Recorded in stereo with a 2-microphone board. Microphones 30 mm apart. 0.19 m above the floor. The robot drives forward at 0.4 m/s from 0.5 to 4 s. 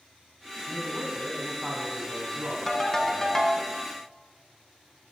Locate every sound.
0.7 s a man speaking: 25° right (ahead or behind), 1.1 m; by 3.7 s 20° right (ahead or behind), 1.5 m
2.7 s a ringtone: 10° left (ahead or behind), 0.7 m; by 3.6 s 15° left (ahead or behind), 0.5 m